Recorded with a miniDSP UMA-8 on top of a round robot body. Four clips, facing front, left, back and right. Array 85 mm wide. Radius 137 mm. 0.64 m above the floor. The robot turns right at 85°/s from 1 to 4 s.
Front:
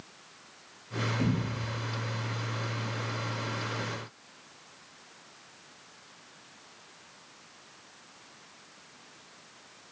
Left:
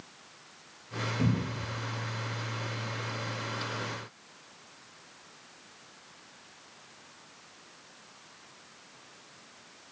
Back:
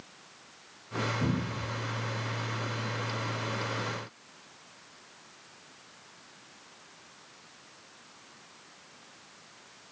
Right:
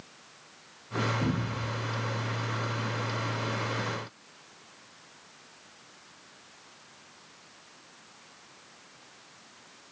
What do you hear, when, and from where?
1.2 s a cupboard door: 55° left, 1.4 m; by 1.7 s 100° left, 1.4 m